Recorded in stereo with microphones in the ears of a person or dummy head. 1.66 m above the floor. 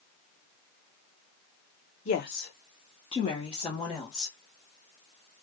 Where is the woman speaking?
30° left (ahead or behind), 0.6 m.